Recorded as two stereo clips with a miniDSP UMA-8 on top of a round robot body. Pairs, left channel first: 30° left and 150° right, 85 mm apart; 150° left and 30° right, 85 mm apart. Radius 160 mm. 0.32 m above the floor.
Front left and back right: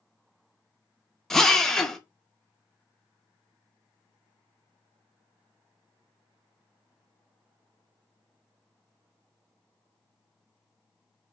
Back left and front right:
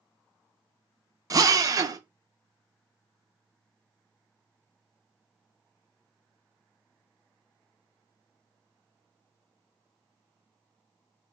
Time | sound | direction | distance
1.3 | a drill | 50° right | 0.6 m